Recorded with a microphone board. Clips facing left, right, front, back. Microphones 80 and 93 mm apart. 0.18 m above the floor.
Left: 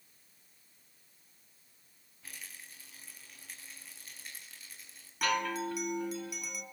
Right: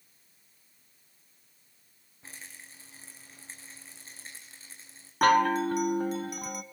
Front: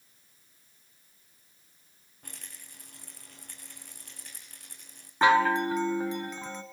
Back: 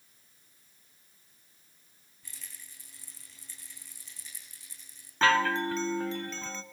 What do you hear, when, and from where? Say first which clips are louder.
2.2 s a rattle: right 2 dB, front 3 dB; 30° right, 4.5 m
5.2 s a chime: right 10 dB, front 3 dB; 70° right, 1.4 m